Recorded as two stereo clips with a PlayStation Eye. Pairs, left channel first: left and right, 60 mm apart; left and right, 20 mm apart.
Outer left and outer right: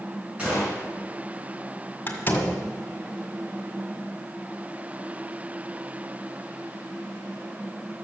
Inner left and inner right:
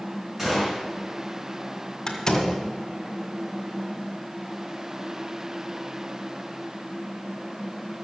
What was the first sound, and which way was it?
A gunshot, 20° right (ahead or behind).